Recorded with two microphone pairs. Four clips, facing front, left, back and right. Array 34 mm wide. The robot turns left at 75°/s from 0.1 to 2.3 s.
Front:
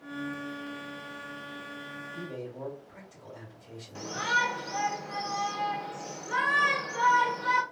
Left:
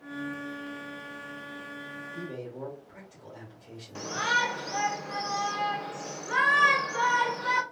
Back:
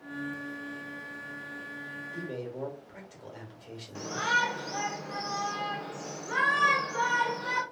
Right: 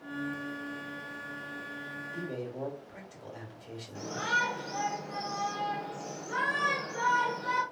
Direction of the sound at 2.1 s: 130° right.